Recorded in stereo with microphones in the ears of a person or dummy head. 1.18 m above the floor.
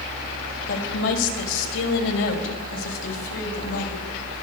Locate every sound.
0.7 s a woman speaking: 70° left (ahead or behind), 5.5 m; by 4.0 s 90° left, 7 m